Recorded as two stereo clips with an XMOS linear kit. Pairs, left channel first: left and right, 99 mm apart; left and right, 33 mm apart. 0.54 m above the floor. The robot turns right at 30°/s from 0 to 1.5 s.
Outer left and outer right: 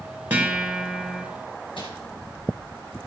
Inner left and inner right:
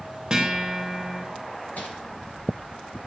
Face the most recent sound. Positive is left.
turn(degrees=60)  # may be behind; listen again after turning